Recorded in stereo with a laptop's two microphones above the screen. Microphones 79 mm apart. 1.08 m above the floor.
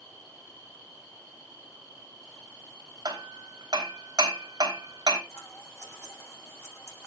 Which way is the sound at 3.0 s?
65° right (ahead or behind).